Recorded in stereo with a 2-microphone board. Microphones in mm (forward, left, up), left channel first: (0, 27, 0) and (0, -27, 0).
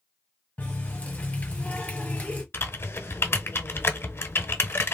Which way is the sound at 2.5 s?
45° left (ahead or behind).